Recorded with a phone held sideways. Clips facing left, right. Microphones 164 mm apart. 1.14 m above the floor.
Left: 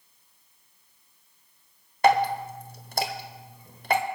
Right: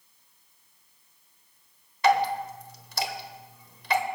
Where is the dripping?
50° left (ahead or behind), 1.1 m.